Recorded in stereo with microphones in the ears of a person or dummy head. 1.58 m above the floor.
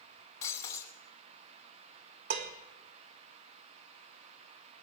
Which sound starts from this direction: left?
Breaking glass, at 0.4 s.